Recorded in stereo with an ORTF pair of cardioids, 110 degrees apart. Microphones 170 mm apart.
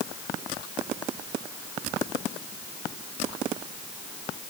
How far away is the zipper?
No zipper in this recording.